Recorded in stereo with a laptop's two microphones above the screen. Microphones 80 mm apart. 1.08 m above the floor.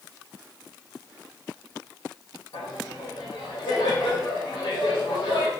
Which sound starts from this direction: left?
Laughter, at 2.5 s.